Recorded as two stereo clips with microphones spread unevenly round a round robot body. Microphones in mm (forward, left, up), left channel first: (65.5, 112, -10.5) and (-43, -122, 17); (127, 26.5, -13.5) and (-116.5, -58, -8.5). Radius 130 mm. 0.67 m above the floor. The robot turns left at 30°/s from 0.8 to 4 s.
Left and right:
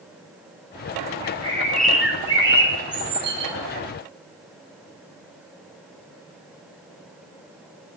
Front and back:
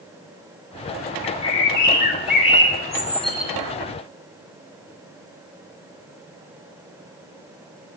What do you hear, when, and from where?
1.2 s a bird: 10° right, 0.8 m; by 3.5 s 80° right, 0.8 m